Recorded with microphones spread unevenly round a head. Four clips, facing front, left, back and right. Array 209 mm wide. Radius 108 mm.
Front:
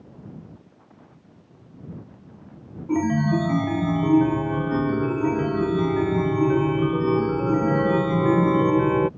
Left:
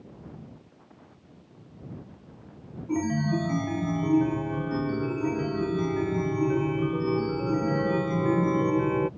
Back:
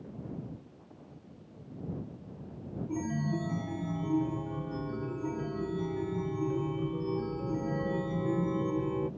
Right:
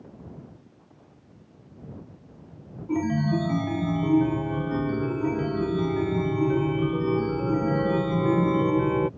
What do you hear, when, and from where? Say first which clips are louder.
2.9 s a chime: right 2 dB, front 13 dB; straight ahead